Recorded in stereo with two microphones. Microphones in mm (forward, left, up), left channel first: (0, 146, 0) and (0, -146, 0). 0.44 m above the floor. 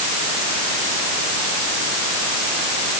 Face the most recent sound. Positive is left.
No sound to turn to.